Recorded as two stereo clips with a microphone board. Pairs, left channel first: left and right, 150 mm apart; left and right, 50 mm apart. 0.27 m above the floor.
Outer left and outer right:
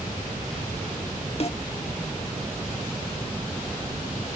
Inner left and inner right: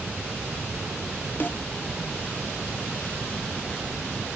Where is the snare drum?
45° left (ahead or behind), 0.7 m.